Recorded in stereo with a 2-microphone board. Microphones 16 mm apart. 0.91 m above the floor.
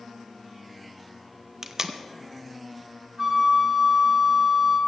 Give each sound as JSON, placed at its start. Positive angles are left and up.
{"t": 1.6, "sound": "tape being pulled", "side_deg": -30, "distance_m": 0.8}
{"t": 3.2, "sound": "a flute", "side_deg": -25, "distance_m": 2.0}